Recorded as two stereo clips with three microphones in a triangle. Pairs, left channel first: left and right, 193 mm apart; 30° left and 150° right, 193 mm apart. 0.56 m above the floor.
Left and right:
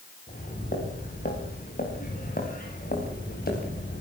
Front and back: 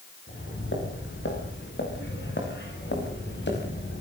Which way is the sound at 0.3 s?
45° left.